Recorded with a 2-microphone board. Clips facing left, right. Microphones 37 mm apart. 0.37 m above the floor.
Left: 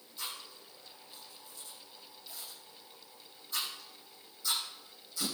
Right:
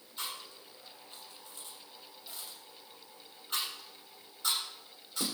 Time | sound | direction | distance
0.2 | chewing | 65° right (ahead or behind) | 7 m